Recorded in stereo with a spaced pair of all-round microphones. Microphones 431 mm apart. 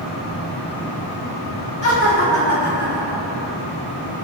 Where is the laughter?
65° left (ahead or behind), 2.0 m; by 3.5 s 25° left (ahead or behind), 0.6 m.